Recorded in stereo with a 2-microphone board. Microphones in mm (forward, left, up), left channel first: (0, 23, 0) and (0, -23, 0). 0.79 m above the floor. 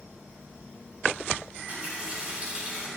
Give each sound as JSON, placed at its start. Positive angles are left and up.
{"t": 1.7, "sound": "a running tap", "side_deg": -25, "distance_m": 4.0}